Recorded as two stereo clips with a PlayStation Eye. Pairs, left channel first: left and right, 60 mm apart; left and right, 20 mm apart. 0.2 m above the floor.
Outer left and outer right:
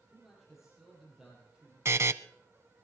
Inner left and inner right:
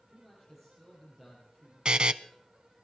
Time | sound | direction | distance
0.1 | a man speaking | centre (ahead or behind) | 7 m
1.9 | a buzzer | 50° right (ahead or behind) | 0.6 m